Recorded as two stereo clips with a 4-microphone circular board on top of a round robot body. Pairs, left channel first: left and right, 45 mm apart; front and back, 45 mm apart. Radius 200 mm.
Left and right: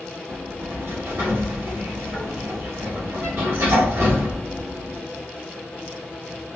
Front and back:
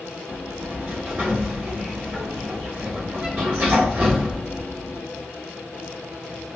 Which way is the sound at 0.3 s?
120° right.